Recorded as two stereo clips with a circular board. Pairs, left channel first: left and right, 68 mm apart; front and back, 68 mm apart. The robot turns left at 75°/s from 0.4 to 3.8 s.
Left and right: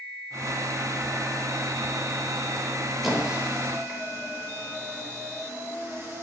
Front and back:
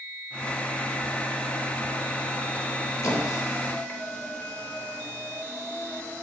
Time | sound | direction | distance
3.0 | a squeak | 5° right | 0.6 m